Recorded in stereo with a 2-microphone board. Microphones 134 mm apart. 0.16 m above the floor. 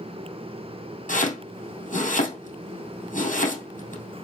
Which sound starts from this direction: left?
Chopping, at 1.1 s.